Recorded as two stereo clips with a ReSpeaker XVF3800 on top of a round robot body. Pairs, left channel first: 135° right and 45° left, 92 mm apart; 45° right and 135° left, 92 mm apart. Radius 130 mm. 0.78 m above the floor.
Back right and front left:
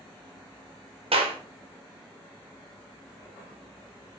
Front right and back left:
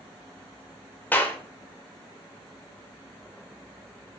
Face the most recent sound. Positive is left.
turn(degrees=30)